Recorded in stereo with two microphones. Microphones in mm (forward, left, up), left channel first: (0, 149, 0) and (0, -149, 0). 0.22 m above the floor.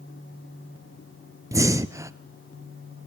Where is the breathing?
10° right (ahead or behind), 0.6 m.